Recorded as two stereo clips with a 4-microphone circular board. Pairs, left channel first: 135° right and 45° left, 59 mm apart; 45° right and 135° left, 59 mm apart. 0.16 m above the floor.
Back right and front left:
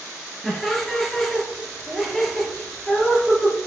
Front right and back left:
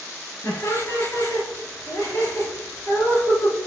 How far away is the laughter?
About 3.5 m.